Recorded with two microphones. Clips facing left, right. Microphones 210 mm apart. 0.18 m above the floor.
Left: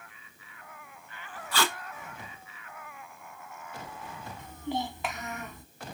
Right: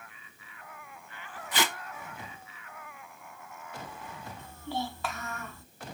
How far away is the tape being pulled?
About 0.5 m.